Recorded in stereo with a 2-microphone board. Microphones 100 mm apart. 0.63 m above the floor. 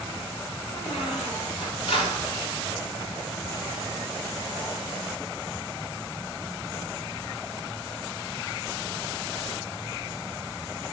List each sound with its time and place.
0.7 s a squeak: 80° left, 1.6 m